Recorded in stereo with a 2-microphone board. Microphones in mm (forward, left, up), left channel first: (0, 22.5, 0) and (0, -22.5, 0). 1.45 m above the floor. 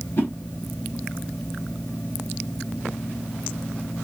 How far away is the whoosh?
About 1.2 m.